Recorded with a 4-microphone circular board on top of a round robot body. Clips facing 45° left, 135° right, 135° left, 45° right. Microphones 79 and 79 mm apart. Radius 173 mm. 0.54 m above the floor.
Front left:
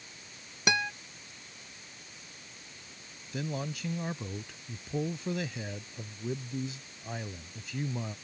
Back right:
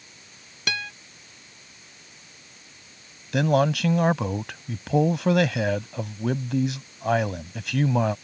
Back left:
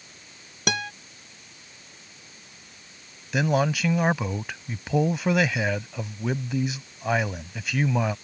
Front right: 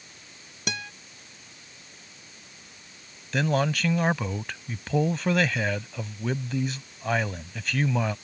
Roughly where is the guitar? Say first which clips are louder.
Front left 2 dB, back left 6 dB; behind left.